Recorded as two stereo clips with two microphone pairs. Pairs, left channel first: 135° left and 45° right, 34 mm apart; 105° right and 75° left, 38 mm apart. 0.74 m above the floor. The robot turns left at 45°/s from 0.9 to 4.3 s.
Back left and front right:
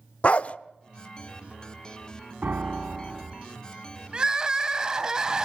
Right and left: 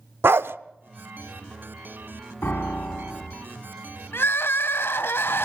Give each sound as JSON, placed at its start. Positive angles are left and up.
{"t": 0.2, "sound": "a dog barking", "azimuth_deg": 85, "distance_m": 0.8}
{"t": 2.4, "sound": "a piano", "azimuth_deg": -75, "distance_m": 3.0}
{"t": 4.1, "sound": "crying", "azimuth_deg": -110, "distance_m": 1.6}